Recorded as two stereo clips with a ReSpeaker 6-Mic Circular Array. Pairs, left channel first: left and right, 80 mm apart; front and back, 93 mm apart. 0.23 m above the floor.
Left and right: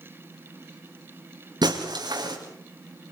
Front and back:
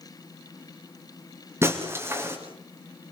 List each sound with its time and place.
1.6 s breaking glass: 120° right, 5 m